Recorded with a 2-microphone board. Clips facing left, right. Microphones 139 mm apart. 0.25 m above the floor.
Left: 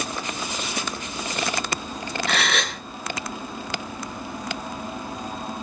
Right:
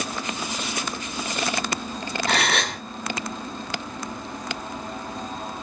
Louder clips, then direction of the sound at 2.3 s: Right 2 dB; 40° right (ahead or behind).